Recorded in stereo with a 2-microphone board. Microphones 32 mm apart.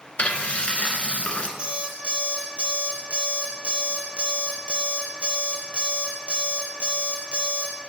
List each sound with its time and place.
0.2 s frying: 45° left (ahead or behind), 0.8 m
1.6 s an alarm clock: 35° right (ahead or behind), 1.6 m